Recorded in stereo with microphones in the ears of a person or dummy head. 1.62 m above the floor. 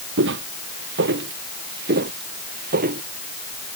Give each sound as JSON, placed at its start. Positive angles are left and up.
{"t": 0.2, "sound": "footsteps", "side_deg": -65}